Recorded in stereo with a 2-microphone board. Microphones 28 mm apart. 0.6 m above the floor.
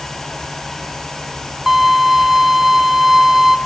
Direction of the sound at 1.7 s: 10° right (ahead or behind).